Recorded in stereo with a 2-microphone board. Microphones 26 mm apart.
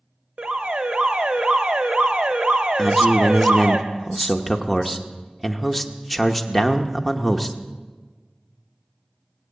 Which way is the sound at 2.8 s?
Centre (ahead or behind).